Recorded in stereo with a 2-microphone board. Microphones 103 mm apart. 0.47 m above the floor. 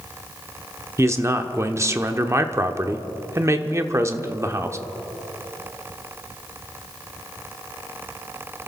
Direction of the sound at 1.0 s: 25° right (ahead or behind).